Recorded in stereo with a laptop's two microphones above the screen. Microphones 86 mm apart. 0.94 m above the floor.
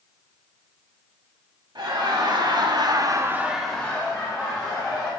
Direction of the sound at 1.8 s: 55° right (ahead or behind).